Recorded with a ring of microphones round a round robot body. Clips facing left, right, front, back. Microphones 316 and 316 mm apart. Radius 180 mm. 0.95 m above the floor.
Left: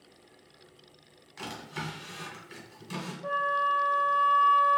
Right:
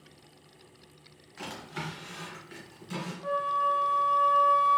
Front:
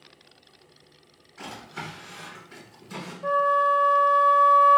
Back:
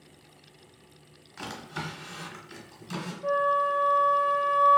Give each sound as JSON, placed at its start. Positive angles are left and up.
{"t": 1.4, "sound": "a drawer", "azimuth_deg": 160, "distance_m": 1.1}
{"t": 3.2, "sound": "a flute", "azimuth_deg": -50, "distance_m": 0.5}